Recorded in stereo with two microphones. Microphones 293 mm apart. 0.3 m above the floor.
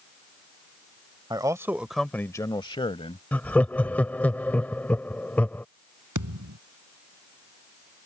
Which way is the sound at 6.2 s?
85° right.